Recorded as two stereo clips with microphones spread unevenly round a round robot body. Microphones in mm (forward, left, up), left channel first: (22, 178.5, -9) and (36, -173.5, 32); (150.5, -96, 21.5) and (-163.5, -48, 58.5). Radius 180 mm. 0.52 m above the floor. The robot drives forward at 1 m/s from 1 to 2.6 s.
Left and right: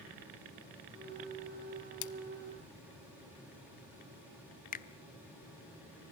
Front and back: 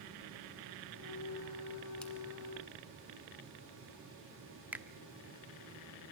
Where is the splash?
80° left, 1.2 m; by 2.1 s 85° left, 1.1 m.